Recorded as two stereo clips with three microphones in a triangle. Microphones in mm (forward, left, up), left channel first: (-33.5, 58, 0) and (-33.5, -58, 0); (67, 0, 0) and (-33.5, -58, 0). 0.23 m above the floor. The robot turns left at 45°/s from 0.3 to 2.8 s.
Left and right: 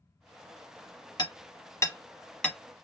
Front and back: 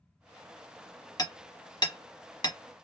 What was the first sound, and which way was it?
Hammering, 70° left.